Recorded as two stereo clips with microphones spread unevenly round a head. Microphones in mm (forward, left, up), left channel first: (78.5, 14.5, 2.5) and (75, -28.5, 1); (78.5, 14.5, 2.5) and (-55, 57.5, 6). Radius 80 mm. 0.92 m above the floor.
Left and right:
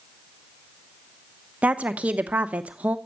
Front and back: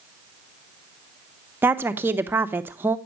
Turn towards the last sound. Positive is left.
turn(degrees=-130)